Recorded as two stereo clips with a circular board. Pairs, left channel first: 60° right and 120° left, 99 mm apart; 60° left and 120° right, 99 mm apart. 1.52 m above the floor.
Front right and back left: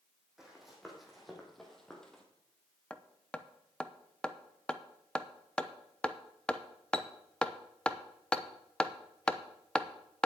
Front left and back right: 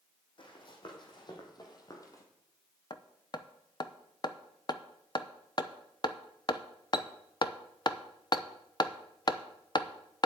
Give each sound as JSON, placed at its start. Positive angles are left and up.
{"t": 0.4, "sound": "running footsteps", "azimuth_deg": 35, "distance_m": 3.5}
{"t": 2.9, "sound": "hammering", "azimuth_deg": 20, "distance_m": 0.7}